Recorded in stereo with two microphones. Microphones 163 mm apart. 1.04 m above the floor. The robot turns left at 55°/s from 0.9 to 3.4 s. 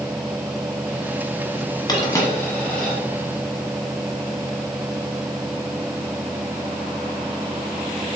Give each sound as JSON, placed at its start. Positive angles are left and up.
{"t": 1.9, "sound": "a dropped coin", "side_deg": 25, "distance_m": 1.0}